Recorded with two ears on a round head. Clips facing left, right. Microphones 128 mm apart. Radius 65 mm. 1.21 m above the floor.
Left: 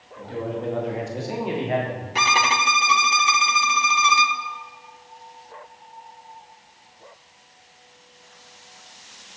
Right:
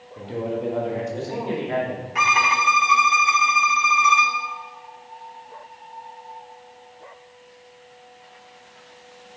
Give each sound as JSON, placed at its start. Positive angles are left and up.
{"t": 0.2, "sound": "a man speaking", "side_deg": -30, "distance_m": 1.4}
{"t": 2.1, "sound": "a violin", "side_deg": 35, "distance_m": 0.5}